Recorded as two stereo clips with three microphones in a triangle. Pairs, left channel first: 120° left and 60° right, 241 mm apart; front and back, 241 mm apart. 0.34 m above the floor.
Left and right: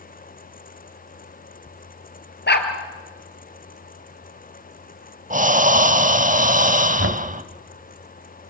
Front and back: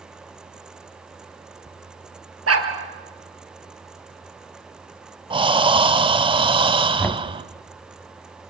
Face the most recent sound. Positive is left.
turn(degrees=-80)